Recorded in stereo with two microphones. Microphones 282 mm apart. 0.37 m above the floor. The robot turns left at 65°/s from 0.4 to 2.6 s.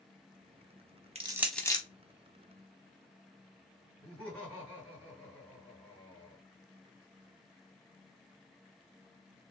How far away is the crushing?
About 0.5 m.